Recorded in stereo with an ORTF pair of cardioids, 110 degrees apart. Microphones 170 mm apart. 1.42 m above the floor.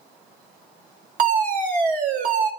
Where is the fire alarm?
55° right, 2.0 m.